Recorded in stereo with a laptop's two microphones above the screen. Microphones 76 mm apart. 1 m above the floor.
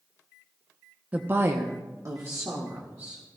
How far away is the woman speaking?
About 0.6 m.